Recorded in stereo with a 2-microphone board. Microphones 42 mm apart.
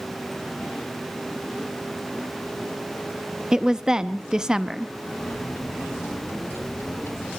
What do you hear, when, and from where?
3.5 s a woman speaking: 15° right (ahead or behind), 0.6 m
5.2 s a microwave: 70° left (ahead or behind), 2.5 m